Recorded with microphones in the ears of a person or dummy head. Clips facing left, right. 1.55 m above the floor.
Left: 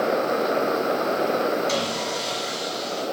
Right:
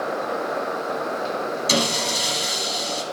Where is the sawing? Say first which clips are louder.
Right 2 dB; 65° right (ahead or behind), 1.7 m.